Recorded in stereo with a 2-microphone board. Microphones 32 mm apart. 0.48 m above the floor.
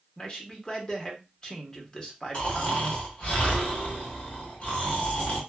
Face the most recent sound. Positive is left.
turn(degrees=40)  # may be behind; listen again after turning